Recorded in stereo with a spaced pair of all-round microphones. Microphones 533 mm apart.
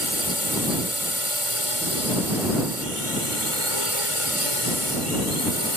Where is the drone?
85° left.